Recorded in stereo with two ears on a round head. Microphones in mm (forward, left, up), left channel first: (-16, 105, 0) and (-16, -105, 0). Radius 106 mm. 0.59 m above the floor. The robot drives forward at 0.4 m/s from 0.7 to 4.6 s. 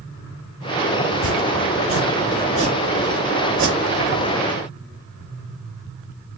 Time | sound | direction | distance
1.1 | chopping | 25° right (ahead or behind) | 3 m